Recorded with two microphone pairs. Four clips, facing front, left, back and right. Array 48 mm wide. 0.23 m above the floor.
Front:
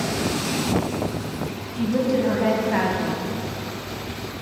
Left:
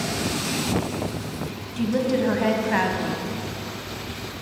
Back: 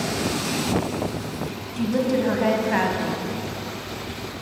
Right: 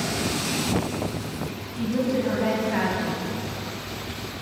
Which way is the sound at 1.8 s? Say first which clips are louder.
Left 2 dB, front 1 dB; 125° left.